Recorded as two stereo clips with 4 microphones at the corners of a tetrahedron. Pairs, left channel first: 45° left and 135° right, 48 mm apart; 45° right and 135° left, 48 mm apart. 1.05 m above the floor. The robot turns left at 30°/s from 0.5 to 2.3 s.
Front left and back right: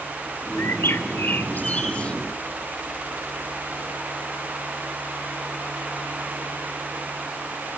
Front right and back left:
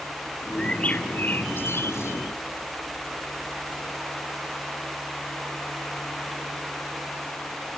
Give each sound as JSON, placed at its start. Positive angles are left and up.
{"t": 0.6, "sound": "a bird", "azimuth_deg": 25, "distance_m": 2.5}